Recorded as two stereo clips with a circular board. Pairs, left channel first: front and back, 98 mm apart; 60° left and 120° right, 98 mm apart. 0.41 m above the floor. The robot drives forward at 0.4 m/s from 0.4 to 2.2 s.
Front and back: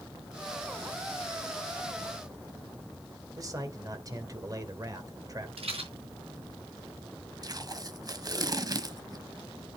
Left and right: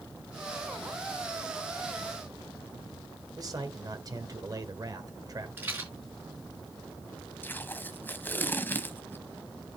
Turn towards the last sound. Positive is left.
turn(degrees=130)